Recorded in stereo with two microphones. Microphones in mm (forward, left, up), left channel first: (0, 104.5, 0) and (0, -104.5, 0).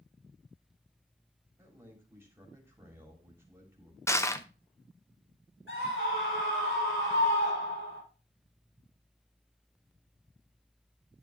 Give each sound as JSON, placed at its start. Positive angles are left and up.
{"t": 1.6, "sound": "a man speaking", "side_deg": -10, "distance_m": 3.0}
{"t": 4.1, "sound": "crushing", "side_deg": 15, "distance_m": 0.7}
{"t": 5.7, "sound": "a scream", "side_deg": 70, "distance_m": 5.5}